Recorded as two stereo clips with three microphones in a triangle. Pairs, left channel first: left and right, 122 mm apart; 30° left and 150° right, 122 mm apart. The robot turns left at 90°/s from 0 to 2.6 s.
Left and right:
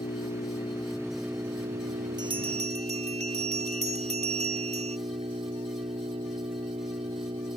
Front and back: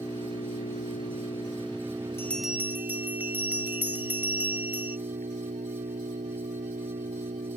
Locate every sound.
0.0 s an engine running: 100° left; by 7.6 s 135° right
2.2 s a bell: 40° right; by 5.0 s 75° right